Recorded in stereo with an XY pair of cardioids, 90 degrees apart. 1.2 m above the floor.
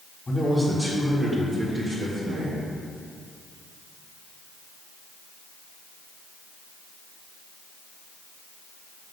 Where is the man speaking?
10° left, 1.9 m; by 2.6 s 60° right, 2 m.